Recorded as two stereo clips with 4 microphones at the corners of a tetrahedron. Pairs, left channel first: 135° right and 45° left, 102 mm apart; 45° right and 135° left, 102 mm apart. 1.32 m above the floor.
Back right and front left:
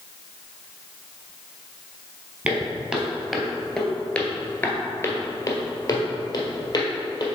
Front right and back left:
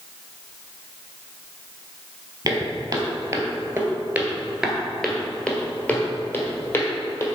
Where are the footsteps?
115° left, 1.7 m; by 7.3 s 100° right, 2 m.